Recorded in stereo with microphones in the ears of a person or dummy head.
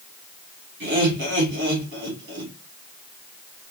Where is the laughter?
60° right (ahead or behind), 3.5 m.